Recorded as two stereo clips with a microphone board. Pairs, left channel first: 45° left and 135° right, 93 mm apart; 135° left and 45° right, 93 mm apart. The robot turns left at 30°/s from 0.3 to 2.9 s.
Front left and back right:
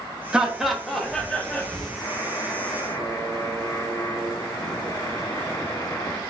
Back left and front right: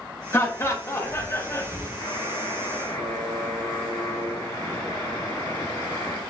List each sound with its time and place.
0.3 s laughter: 150° left, 0.8 m; by 1.9 s 105° left, 0.8 m
2.0 s a buzzer: 115° left, 1.7 m; by 6.2 s 85° left, 1.7 m